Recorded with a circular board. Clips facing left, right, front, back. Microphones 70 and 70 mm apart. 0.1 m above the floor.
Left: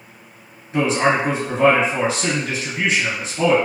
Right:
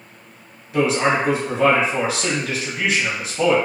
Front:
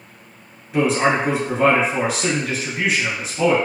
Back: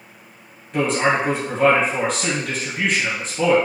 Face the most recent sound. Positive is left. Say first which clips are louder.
# left 1 dB, front 1 dB
turn(degrees=80)